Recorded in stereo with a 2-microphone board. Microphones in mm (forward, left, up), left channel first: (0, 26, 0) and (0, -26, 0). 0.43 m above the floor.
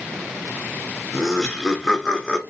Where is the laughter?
Centre (ahead or behind), 0.8 m; by 2.4 s 15° left (ahead or behind), 0.7 m.